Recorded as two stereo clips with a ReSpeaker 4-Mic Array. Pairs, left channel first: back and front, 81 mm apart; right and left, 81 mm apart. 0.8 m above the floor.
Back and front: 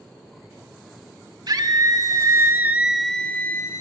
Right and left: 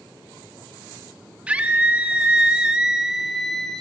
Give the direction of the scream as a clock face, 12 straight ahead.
11 o'clock.